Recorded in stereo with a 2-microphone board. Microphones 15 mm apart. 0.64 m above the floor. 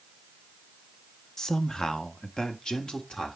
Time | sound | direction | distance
1.4 | a man speaking | 40° left (ahead or behind) | 0.8 m